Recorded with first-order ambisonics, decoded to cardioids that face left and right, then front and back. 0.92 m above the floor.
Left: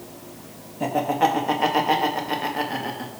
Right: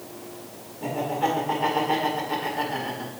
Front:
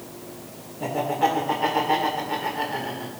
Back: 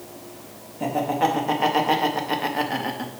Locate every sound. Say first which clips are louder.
0.8 s laughter: left 5 dB, back 1 dB; 110° left, 1.8 m; by 3.1 s 160° left, 1.8 m